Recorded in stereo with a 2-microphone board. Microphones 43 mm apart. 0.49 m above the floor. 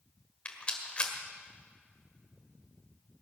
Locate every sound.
0.5 s a rattle: 30° left (ahead or behind), 1.7 m